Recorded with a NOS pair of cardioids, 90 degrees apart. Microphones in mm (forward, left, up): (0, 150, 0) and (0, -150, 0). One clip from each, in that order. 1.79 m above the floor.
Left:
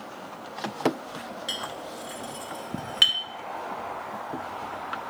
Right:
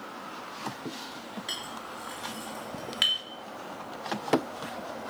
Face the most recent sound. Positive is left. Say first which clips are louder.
# left 3 dB
turn(degrees=25)